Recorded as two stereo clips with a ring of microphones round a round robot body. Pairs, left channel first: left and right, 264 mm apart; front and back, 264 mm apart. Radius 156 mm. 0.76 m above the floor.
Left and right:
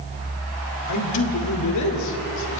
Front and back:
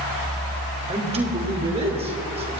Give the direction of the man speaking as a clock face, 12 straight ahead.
8 o'clock.